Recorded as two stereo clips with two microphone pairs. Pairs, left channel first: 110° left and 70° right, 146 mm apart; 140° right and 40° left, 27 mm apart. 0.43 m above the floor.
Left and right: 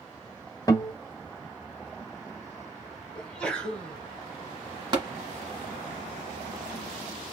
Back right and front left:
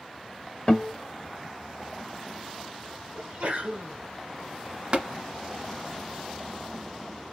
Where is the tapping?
10° right, 1.5 m.